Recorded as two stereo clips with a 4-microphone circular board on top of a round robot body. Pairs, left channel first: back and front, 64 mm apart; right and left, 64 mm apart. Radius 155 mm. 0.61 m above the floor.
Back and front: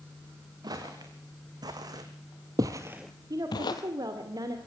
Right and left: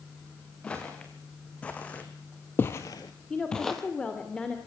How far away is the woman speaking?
About 2.5 m.